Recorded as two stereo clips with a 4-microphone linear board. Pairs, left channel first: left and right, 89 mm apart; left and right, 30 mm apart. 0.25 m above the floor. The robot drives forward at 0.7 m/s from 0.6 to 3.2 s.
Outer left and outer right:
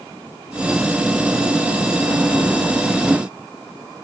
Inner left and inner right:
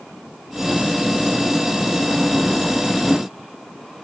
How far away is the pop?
No pop in this recording.